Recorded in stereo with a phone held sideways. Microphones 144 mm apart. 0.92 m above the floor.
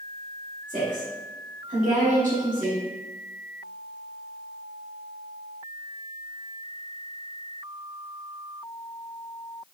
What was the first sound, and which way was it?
A woman speaking, 65° right (ahead or behind).